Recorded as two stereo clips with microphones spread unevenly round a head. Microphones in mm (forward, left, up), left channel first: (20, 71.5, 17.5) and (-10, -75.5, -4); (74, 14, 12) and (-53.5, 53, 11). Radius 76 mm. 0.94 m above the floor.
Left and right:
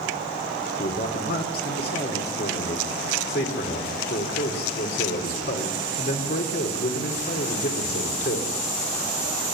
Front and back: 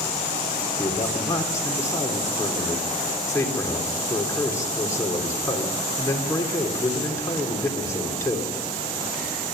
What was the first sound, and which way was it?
A man speaking, 50° left.